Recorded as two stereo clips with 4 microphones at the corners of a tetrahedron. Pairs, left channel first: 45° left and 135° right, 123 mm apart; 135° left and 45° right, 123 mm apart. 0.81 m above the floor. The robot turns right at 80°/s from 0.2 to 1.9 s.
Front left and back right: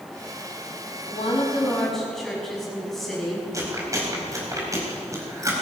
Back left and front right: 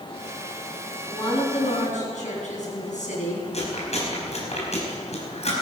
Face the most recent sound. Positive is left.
turn(degrees=160)